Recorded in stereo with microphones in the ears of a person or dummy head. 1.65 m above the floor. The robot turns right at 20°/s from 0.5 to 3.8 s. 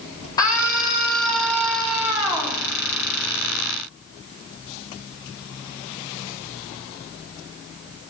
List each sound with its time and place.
0.4 s a scream: 160° left, 3.5 m; by 2.6 s 160° right, 3.5 m